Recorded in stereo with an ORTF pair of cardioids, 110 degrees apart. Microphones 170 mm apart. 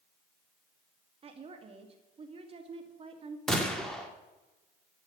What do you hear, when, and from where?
1.2 s a woman speaking: 35° right, 2.5 m
3.5 s a gunshot: 5° left, 2.5 m